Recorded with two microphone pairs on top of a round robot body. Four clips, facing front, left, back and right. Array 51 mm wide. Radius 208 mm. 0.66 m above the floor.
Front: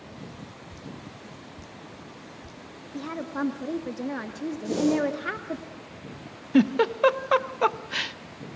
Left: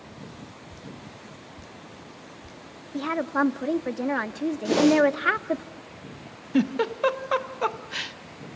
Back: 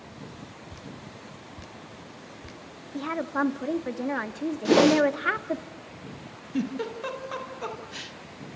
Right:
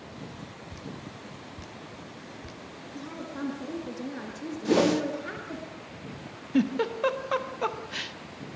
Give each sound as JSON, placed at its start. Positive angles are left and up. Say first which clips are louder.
{"t": 0.7, "sound": "dripping", "louder": "right 1 dB, front 1 dB", "azimuth_deg": -155, "distance_m": 1.8}
{"t": 2.9, "sound": "a woman speaking", "louder": "left 13 dB, back 4 dB", "azimuth_deg": 115, "distance_m": 2.0}
{"t": 4.7, "sound": "a whoosh", "louder": "left 4 dB, back 6 dB", "azimuth_deg": 180, "distance_m": 2.0}
{"t": 6.5, "sound": "a giggle", "louder": "left 2 dB, front 9 dB", "azimuth_deg": 15, "distance_m": 1.7}